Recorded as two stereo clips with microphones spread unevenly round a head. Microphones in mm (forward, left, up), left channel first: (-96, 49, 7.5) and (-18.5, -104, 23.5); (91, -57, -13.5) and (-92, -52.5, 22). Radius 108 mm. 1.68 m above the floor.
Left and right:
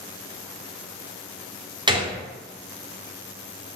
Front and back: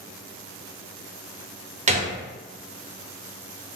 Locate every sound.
1.9 s a gunshot: 130° right, 0.8 m